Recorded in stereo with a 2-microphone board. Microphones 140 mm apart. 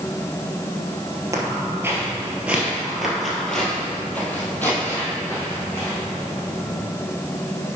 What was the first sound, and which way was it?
Footsteps, 25° right (ahead or behind).